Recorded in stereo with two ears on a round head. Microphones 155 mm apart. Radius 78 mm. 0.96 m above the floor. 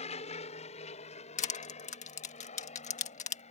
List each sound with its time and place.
0.0 s an aircraft: 40° left (ahead or behind)
1.4 s crushing: 45° left (ahead or behind)